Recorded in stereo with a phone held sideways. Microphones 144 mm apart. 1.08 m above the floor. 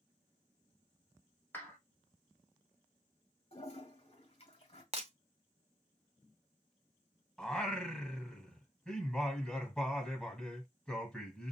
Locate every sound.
1.5 s a clap: 15° left (ahead or behind), 2 m
3.5 s a toilet flushing: 45° left (ahead or behind), 2 m
4.9 s breaking glass: 45° right (ahead or behind), 0.9 m
7.4 s singing: 5° left (ahead or behind), 1.4 m